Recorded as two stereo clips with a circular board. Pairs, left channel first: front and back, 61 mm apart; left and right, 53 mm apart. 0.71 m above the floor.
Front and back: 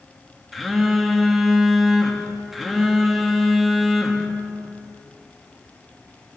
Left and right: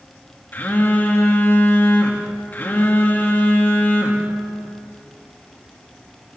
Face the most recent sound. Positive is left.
turn(degrees=95)